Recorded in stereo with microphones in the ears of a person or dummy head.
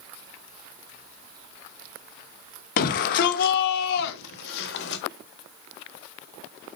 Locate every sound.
2.8 s a shout: 55° left (ahead or behind), 1.4 m; by 5.0 s 75° left (ahead or behind), 2.5 m